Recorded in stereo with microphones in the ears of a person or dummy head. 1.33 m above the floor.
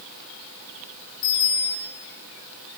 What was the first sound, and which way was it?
A bicycle bell, 85° left.